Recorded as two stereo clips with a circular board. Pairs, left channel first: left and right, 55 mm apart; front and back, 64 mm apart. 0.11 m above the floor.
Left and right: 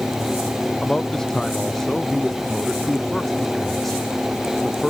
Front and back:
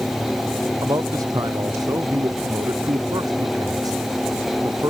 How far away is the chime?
No chime in this recording.